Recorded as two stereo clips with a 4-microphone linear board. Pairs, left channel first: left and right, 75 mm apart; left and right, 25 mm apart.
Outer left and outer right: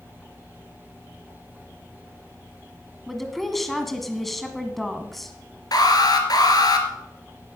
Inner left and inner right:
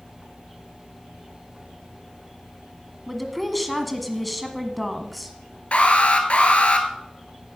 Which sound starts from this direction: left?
An alarm, at 5.7 s.